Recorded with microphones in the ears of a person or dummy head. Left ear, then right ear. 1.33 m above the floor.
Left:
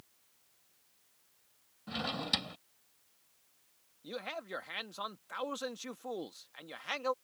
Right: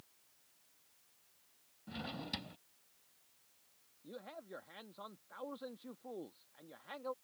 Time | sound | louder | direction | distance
1.9 | a drawer | left 10 dB | 35° left (ahead or behind) | ?
4.0 | a man speaking | left 9 dB | 70° left (ahead or behind) | ?